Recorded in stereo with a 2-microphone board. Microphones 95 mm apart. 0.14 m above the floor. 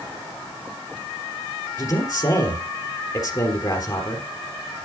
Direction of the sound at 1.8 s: 40° left (ahead or behind).